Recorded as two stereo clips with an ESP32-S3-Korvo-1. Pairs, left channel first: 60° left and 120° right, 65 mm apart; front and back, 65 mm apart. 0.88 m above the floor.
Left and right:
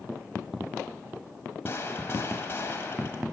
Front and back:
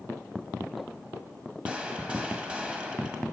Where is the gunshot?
110° left, 1.6 m.